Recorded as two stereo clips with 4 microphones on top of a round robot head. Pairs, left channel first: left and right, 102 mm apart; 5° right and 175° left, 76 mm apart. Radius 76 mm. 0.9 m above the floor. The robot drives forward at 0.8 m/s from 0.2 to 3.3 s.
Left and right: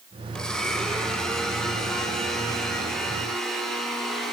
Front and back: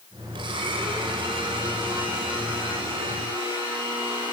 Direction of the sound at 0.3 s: 175° left.